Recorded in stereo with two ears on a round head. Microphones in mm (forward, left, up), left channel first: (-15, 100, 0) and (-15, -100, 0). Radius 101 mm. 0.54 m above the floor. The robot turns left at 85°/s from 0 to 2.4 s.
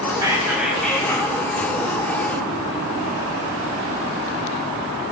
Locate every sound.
0.1 s whispering: 15° right (ahead or behind), 0.6 m; by 1.4 s 20° left (ahead or behind), 0.6 m